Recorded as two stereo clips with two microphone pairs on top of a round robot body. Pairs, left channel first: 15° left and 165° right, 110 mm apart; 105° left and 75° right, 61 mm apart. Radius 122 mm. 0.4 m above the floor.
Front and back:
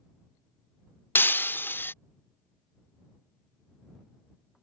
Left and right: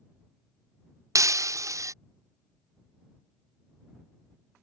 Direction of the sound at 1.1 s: 60° right.